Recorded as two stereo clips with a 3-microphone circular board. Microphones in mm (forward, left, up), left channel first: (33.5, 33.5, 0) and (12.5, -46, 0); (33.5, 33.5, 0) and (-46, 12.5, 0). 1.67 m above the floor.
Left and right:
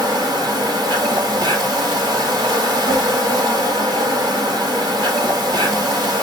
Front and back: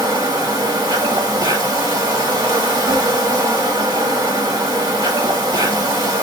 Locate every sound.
0.0 s an insect: 135° right, 3 m